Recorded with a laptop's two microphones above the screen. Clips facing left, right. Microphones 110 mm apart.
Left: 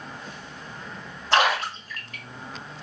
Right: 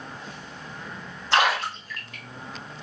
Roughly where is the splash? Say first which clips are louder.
Left 1 dB; left.